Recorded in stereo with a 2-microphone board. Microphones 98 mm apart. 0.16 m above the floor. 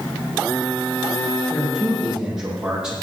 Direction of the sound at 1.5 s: 5° right (ahead or behind).